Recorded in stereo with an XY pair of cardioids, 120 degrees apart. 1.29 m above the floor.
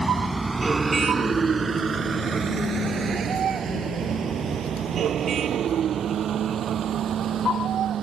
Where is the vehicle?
5° right; by 8.0 s 50° right.